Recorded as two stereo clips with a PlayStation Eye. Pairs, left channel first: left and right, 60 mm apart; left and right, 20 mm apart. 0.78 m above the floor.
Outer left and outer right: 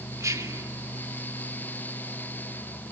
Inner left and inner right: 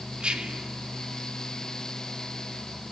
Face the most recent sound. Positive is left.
turn(degrees=-60)  # may be behind; listen again after turning